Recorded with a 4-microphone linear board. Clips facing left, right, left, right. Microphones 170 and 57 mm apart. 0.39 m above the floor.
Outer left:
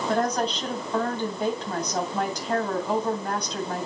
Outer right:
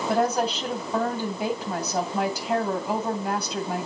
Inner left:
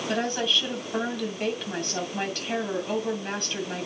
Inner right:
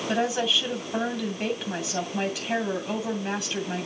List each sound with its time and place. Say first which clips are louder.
0.1 s a woman speaking: outer right 2 dB, inner right 2 dB; 10° right (ahead or behind), 2.5 m